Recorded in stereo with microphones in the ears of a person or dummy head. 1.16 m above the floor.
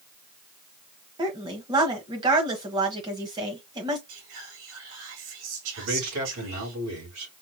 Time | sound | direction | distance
1.2 | a woman speaking | 20° right (ahead or behind) | 1.2 m
4.1 | whispering | 70° right (ahead or behind) | 2 m
5.8 | a man speaking | 80° right | 4 m